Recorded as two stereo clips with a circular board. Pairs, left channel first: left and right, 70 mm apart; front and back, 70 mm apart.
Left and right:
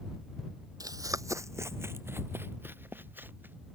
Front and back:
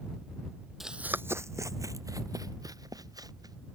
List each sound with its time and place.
0.8 s running footsteps: 95° right; by 3.5 s 155° right